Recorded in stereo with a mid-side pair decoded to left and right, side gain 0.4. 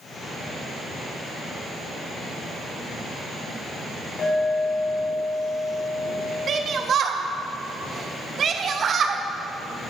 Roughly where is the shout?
Ahead right.